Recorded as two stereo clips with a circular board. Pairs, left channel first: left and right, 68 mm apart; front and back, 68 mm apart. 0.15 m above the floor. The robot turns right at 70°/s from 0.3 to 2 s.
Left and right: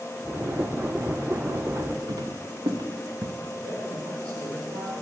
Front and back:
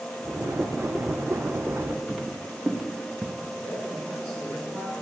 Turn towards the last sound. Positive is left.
turn(degrees=-75)